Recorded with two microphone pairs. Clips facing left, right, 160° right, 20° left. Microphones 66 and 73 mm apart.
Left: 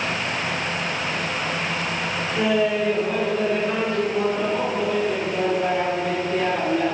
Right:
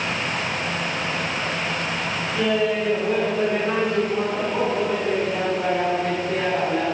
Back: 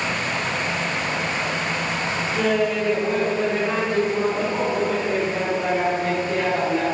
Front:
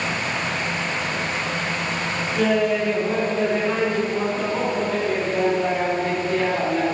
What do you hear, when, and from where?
2.4 s laughter: 105° left, 1.4 m; by 6.9 s 70° right, 4 m